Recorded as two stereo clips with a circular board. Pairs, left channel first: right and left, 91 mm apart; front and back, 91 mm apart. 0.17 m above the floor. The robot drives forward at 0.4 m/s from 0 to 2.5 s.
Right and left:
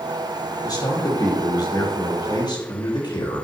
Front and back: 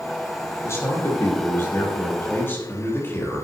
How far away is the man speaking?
About 5 m.